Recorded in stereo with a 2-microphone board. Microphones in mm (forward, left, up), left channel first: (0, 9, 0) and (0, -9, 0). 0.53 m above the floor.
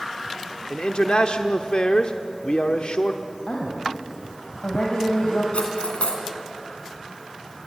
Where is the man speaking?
50° left (ahead or behind), 1.0 m.